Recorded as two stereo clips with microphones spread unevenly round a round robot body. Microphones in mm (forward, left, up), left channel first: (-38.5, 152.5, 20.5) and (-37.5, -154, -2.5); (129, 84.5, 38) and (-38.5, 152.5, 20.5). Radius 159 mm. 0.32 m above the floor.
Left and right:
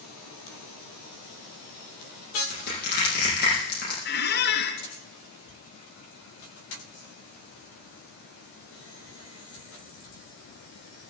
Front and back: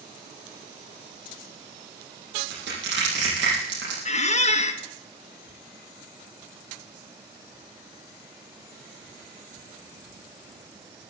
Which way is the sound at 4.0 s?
30° left.